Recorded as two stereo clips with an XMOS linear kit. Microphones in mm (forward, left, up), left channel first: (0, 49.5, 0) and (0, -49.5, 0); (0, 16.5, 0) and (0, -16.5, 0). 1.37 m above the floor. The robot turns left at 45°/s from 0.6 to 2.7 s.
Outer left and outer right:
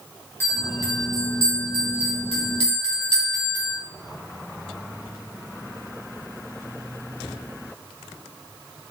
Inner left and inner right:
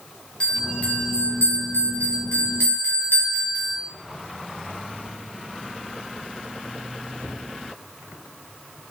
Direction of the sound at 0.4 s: 150° left.